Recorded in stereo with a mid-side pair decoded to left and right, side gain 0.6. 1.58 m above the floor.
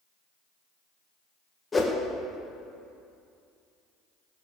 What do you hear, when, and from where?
1.7 s a whoosh: 20° left, 1.7 m